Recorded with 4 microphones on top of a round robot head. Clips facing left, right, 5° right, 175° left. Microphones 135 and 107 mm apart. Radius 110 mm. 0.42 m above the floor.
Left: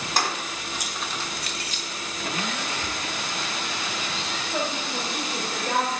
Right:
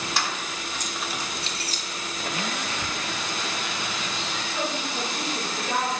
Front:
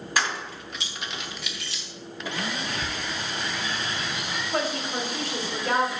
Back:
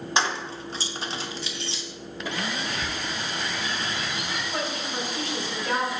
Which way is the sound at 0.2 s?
115° left.